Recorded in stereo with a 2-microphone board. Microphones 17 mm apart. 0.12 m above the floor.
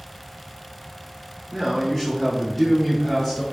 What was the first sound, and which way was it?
A man speaking, centre (ahead or behind).